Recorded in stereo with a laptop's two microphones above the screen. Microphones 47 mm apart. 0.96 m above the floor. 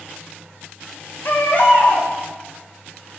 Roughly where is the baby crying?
Left.